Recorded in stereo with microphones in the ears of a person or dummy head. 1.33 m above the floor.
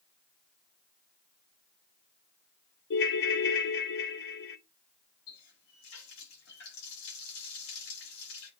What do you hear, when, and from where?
2.9 s a ringtone: 60° left (ahead or behind), 0.9 m
5.3 s a running tap: 85° left, 6 m